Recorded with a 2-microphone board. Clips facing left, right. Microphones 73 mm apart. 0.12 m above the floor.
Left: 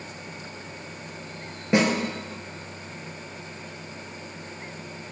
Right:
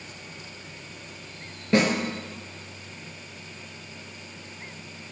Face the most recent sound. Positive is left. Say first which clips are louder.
# even
turn(degrees=20)  # may be behind; listen again after turning